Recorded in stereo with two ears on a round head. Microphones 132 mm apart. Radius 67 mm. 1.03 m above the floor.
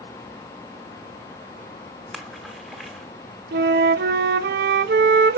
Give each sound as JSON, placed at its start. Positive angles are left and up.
{"t": 2.1, "sound": "a splash", "side_deg": 0, "distance_m": 1.3}
{"t": 3.5, "sound": "a flute", "side_deg": -70, "distance_m": 0.6}